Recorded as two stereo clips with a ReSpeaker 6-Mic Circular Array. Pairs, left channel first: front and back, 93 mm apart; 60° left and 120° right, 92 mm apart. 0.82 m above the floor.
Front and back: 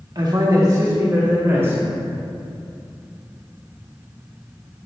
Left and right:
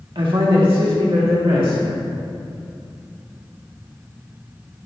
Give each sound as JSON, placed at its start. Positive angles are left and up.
{"t": 0.1, "sound": "a man speaking", "azimuth_deg": -145, "distance_m": 1.1}